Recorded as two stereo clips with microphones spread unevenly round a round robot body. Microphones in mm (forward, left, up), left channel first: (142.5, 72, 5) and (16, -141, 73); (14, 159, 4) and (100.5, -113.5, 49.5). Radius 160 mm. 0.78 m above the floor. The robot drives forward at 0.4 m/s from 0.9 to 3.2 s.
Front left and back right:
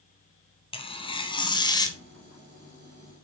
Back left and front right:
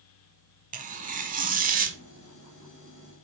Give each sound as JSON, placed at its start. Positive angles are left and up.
{"t": 0.7, "sound": "tearing paper", "azimuth_deg": -15, "distance_m": 1.3}